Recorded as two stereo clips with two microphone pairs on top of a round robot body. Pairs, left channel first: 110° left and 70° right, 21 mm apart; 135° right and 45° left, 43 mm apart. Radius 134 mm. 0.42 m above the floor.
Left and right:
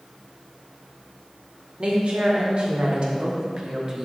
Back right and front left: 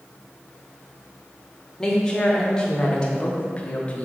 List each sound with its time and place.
1.8 s a woman speaking: 60° right, 2 m; by 4.0 s 105° right, 1.5 m